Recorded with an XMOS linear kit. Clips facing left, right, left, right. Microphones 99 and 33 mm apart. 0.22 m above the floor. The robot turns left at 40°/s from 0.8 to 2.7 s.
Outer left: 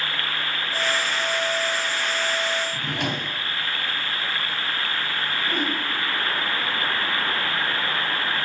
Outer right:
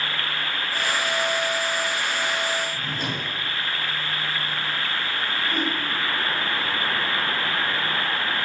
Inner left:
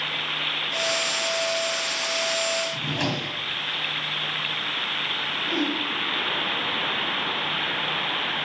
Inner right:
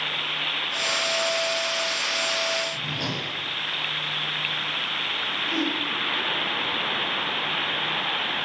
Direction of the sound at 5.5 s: 15° left (ahead or behind).